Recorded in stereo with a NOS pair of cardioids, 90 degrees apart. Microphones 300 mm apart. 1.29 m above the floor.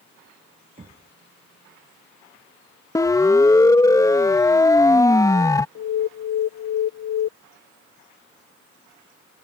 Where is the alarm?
60° left.